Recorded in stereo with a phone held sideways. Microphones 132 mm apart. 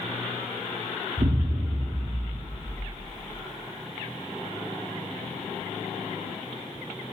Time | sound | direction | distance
1.2 | an explosion | 75° right (ahead or behind) | 1.6 m